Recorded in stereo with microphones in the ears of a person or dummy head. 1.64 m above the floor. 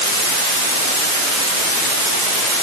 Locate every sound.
Only background noise.